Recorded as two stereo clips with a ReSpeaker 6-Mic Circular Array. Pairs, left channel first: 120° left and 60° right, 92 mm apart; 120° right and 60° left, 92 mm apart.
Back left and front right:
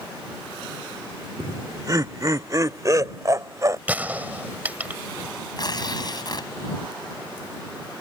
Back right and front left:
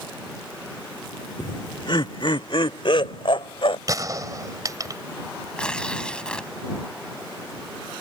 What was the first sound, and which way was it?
Laughter, 100° right.